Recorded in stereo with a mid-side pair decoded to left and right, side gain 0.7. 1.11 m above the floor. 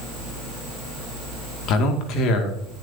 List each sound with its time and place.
1.7 s a man speaking: 55° left, 2 m